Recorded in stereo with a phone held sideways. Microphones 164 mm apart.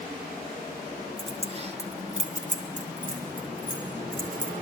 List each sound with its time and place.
1.2 s keys jangling: 35° right (ahead or behind), 1.4 m; by 4.5 s 60° right (ahead or behind), 3.5 m